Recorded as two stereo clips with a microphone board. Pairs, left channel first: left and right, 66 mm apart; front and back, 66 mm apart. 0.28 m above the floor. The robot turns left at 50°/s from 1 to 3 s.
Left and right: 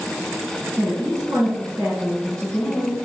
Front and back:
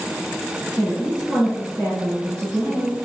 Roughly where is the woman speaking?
Right.